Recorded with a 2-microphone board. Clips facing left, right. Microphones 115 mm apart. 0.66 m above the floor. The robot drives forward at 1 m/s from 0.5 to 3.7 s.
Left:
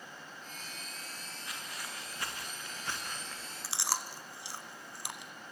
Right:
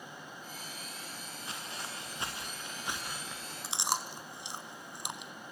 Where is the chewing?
20° right (ahead or behind), 1.3 m.